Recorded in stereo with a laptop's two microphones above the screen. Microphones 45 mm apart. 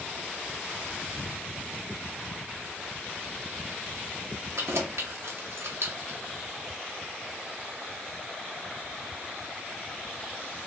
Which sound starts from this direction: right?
Keys jangling, at 4.6 s.